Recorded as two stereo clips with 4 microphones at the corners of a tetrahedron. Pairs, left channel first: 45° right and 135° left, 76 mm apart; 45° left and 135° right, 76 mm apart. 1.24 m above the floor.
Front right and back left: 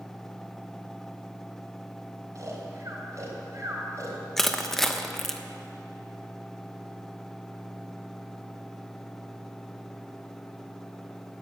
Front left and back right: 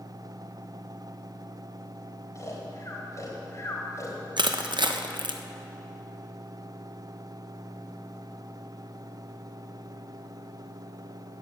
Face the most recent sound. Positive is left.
turn(degrees=-130)